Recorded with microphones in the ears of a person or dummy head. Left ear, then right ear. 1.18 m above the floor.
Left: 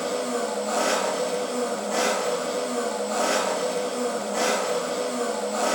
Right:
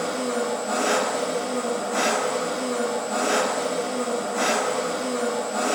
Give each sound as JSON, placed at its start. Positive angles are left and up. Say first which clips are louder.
{"t": 0.0, "sound": "an engine running", "louder": "right 1 dB", "side_deg": 50, "distance_m": 0.9}